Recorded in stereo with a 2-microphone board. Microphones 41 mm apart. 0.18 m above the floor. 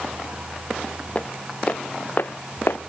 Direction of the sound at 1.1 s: 30° left (ahead or behind).